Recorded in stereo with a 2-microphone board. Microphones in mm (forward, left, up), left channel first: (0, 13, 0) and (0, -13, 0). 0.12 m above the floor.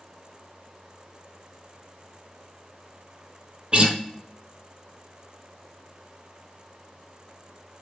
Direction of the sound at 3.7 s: 40° right (ahead or behind).